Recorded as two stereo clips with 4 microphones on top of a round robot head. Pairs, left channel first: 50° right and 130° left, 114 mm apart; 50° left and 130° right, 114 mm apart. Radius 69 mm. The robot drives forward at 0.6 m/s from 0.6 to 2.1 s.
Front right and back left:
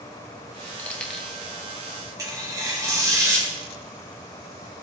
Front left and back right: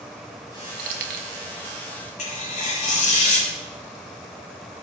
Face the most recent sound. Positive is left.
turn(degrees=70)